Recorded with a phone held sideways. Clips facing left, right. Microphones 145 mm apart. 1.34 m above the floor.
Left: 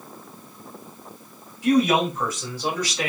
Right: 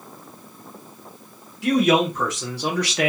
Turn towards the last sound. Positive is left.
turn(degrees=-65)  # may be behind; listen again after turning